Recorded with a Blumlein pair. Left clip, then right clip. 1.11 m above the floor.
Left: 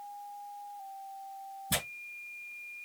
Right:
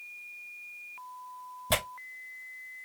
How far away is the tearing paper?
About 1.9 m.